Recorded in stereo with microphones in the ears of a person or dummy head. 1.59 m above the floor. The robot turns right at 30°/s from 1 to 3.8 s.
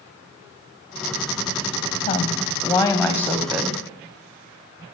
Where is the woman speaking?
135° left, 0.7 m; by 3.8 s 170° right, 0.7 m.